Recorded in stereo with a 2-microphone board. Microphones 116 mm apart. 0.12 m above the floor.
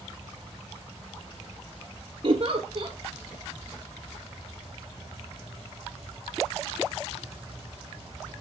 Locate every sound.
2.2 s a giggle: 50° right (ahead or behind), 1.2 m